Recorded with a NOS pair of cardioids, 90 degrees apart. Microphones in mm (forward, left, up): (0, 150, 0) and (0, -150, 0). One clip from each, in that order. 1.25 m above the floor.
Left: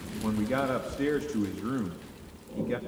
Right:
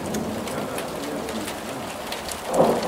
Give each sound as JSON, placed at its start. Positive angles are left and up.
{"t": 0.2, "sound": "a man speaking", "azimuth_deg": 40, "distance_m": 2.5}